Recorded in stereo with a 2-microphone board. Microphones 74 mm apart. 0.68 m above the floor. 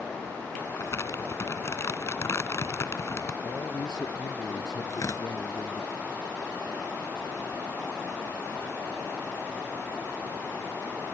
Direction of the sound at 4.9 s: 50° left (ahead or behind).